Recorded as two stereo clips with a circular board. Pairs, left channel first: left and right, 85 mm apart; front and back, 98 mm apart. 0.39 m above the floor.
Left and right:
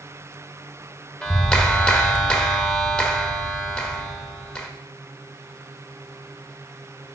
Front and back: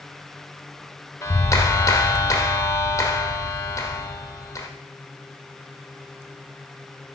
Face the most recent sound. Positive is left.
turn(degrees=20)